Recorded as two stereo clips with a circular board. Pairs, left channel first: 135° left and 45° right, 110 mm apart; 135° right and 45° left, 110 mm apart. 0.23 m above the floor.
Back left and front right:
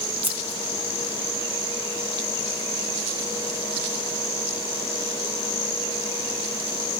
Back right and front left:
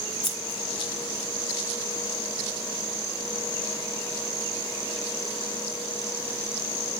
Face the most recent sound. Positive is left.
turn(degrees=-120)